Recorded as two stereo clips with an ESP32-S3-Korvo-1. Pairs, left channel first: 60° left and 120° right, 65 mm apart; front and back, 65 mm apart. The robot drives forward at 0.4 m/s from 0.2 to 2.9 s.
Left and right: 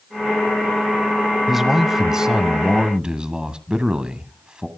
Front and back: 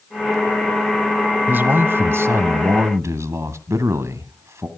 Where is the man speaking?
160° left, 1.2 m; by 4.7 s 170° left, 1.6 m.